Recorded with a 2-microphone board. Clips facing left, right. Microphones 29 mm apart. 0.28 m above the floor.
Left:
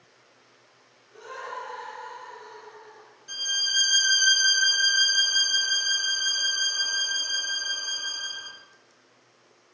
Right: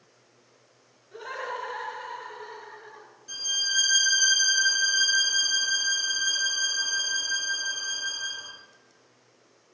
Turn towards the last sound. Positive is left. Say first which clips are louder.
# left 2 dB
turn(degrees=15)  # may be behind; listen again after turning